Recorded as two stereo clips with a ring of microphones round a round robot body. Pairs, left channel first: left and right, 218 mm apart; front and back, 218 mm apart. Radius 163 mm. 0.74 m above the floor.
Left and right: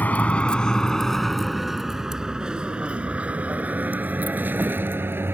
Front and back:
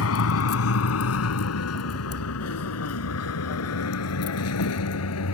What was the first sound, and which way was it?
A vehicle, 5° left.